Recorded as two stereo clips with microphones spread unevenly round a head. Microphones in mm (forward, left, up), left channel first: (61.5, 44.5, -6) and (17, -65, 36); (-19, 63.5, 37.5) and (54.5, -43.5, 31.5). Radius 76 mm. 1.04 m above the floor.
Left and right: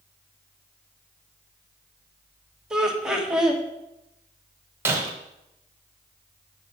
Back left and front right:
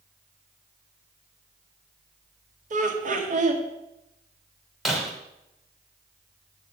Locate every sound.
2.7 s laughter: 25° right, 1.7 m
4.8 s breaking glass: 145° right, 0.8 m